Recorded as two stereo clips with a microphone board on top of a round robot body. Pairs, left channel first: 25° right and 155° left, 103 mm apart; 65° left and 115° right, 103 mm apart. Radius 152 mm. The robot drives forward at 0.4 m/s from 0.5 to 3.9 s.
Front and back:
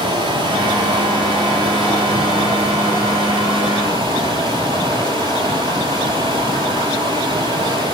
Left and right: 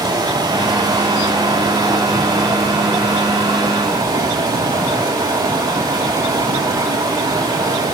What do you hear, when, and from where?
0.0 s running water: 165° right, 8.5 m; by 7.9 s 170° right, 9.5 m